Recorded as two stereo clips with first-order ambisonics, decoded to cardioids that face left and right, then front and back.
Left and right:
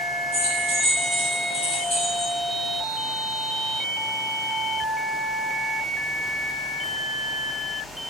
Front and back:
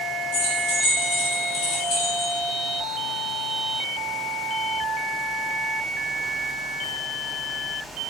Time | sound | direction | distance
0.3 | keys jangling | 10° right | 1.4 m